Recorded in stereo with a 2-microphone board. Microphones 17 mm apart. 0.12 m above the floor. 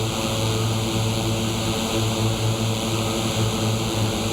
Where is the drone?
5° right (ahead or behind).